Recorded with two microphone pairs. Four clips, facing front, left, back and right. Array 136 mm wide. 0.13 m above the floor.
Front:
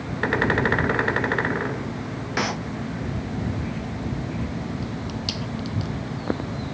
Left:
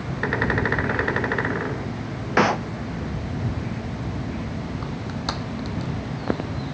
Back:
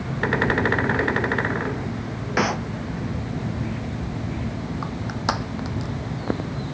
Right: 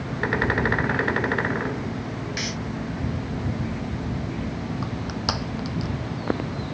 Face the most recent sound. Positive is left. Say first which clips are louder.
# right 1 dB, back 4 dB
turn(degrees=-170)